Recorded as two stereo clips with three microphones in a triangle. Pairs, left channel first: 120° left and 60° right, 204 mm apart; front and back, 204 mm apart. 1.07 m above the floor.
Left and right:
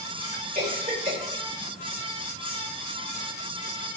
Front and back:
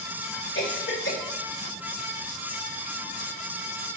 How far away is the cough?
About 3.5 m.